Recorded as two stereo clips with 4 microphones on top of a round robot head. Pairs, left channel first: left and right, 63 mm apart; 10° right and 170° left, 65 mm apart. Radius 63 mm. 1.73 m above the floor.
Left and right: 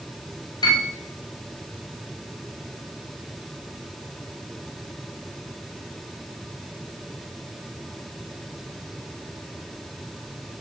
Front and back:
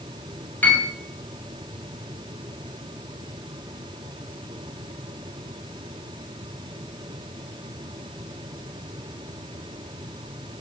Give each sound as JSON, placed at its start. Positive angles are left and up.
{"t": 0.6, "sound": "a piano", "azimuth_deg": 55, "distance_m": 6.5}